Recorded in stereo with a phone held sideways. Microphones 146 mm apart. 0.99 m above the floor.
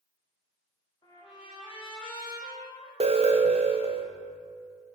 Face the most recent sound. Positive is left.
turn(degrees=-45)  # may be behind; listen again after turning